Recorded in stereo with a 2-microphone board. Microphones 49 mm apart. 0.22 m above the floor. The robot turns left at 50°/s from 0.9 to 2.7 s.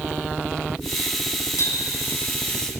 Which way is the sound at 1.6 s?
65° left (ahead or behind).